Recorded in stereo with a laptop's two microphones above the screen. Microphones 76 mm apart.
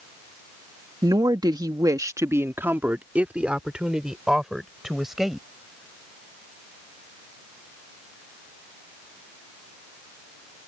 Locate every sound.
1.0 s a woman speaking: 60° right (ahead or behind); by 5.5 s 5° right (ahead or behind)